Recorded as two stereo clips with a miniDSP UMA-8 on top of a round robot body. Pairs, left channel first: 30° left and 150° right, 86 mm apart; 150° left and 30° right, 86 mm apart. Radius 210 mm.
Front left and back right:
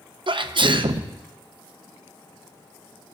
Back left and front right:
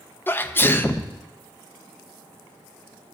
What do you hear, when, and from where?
0.3 s a sneeze: 145° right, 0.7 m